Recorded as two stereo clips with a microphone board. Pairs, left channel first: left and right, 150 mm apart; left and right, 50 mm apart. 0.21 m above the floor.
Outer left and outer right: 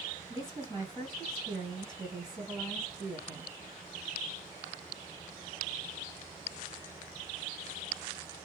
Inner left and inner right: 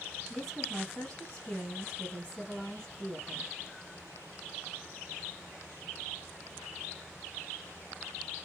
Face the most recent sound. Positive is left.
turn(degrees=0)  # may be behind; listen again after turning